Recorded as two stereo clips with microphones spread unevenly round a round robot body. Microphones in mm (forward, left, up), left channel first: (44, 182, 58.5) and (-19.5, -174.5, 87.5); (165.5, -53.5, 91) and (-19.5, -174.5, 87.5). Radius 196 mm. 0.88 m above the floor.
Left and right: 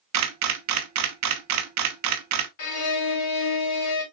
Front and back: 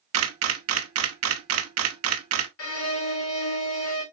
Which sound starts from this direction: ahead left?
A violin, at 2.6 s.